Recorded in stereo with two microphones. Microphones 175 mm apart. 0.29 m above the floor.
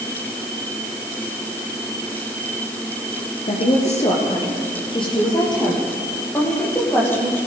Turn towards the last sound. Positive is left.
turn(degrees=10)  # may be behind; listen again after turning